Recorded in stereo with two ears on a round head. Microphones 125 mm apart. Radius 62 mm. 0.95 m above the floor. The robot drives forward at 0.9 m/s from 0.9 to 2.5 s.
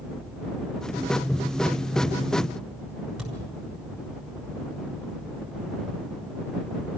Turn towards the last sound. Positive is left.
turn(degrees=-5)  # may be behind; listen again after turning